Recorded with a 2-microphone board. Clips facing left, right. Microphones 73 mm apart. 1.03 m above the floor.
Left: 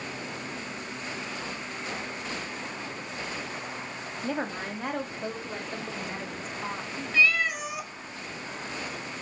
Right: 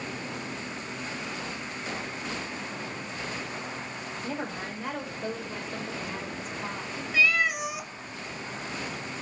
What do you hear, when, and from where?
4.2 s a woman speaking: 70° left (ahead or behind), 1.9 m; by 7.0 s 40° left (ahead or behind), 3.5 m
7.1 s a cat meowing: 10° right (ahead or behind), 1.0 m